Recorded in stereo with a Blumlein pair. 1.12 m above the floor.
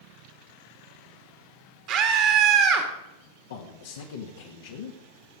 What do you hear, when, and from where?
1.9 s a scream: 45° right, 2.0 m
3.5 s a man speaking: 60° left, 1.7 m